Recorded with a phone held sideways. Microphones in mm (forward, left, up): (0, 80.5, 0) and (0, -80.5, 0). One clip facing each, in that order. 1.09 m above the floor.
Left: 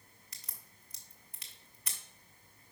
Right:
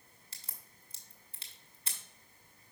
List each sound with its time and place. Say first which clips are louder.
0.3 s a crack: right 1 dB; 30° right (ahead or behind), 1.2 m